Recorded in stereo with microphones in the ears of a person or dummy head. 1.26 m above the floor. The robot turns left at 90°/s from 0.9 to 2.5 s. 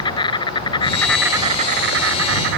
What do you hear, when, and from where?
0.0 s an insect: 30° left; by 2.6 s 110° right